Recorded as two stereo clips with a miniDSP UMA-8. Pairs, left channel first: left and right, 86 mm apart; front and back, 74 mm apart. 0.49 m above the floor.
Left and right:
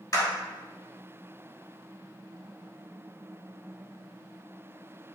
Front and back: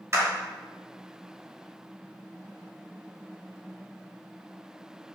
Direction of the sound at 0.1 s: 135° left.